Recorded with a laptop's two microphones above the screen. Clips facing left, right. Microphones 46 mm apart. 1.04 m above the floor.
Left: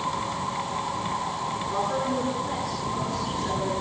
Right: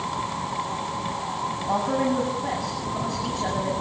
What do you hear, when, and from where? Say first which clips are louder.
1.7 s a woman speaking: right 4 dB; 85° right, 7 m